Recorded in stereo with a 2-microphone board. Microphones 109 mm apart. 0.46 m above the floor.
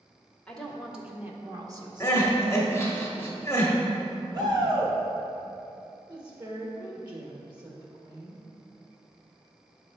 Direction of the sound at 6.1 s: 40° right (ahead or behind).